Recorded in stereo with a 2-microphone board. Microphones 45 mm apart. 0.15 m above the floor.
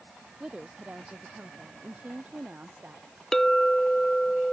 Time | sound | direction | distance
0.4 | a woman speaking | 20° right (ahead or behind) | ?
3.3 | a clink | 10° left (ahead or behind) | ?